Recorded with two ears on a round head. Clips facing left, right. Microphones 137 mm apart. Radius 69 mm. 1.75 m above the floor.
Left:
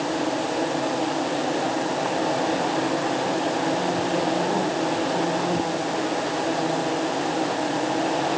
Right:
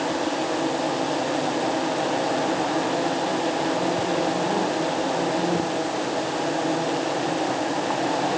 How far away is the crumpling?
No crumpling in this recording.